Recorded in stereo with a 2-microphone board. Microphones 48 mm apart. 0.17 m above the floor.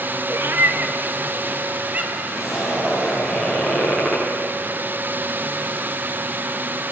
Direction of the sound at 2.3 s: 5° right (ahead or behind).